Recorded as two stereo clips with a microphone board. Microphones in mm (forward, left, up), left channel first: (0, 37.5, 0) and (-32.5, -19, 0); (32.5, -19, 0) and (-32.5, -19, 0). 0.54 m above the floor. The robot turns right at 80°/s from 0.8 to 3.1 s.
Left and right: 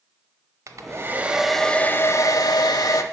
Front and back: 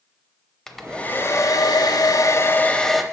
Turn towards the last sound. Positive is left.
turn(degrees=100)